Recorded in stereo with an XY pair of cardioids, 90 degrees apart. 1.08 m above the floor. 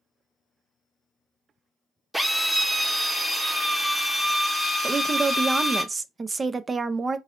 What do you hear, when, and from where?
2.1 s a drill: 10° right, 1.2 m
4.8 s a woman speaking: 35° right, 0.6 m